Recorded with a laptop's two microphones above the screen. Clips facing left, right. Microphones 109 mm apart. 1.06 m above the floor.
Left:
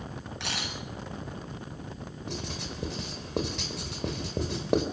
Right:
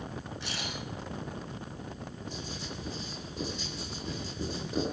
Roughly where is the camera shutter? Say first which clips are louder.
Left 2 dB; left.